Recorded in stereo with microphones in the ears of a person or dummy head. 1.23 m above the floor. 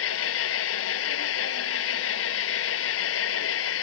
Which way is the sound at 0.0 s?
80° left.